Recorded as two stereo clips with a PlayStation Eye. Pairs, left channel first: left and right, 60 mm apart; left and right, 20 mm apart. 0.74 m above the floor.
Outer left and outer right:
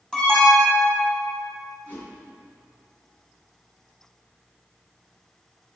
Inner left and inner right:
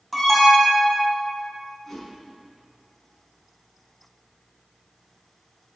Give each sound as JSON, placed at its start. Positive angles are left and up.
{"t": 0.1, "sound": "an alarm", "side_deg": 10, "distance_m": 5.0}
{"t": 1.9, "sound": "a whoosh", "side_deg": 25, "distance_m": 5.0}